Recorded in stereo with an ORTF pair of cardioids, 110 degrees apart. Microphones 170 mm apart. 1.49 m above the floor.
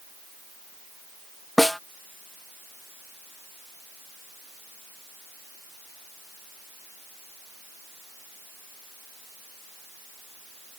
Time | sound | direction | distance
1.6 | a snare drum | straight ahead | ?